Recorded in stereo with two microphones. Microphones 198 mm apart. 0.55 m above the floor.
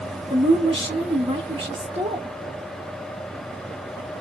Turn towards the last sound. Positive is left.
turn(degrees=-30)  # may be behind; listen again after turning